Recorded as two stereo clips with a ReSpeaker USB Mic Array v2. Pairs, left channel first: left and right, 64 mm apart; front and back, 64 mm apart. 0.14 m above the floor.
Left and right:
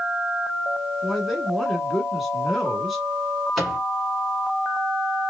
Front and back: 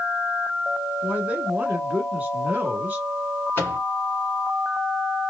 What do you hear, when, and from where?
1.0 s a man speaking: 175° right, 1.1 m
3.6 s a microwave: 5° right, 1.3 m